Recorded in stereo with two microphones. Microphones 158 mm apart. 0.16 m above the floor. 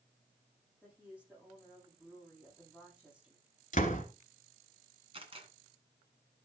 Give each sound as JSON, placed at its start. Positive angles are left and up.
{"t": 0.8, "sound": "a woman speaking", "side_deg": -5, "distance_m": 6.5}
{"t": 3.7, "sound": "a door slam", "side_deg": 55, "distance_m": 1.6}
{"t": 5.1, "sound": "a camera shutter", "side_deg": -35, "distance_m": 1.7}